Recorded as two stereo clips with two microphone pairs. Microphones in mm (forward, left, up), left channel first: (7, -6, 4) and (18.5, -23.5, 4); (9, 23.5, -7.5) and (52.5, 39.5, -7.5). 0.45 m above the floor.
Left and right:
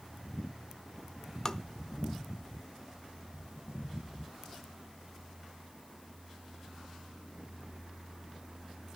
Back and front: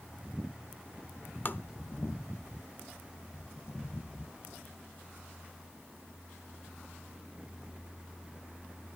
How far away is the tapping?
About 0.5 m.